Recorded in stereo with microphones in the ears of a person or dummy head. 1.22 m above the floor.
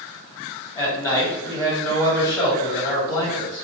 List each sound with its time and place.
0.8 s a man speaking: 15° left (ahead or behind), 1.7 m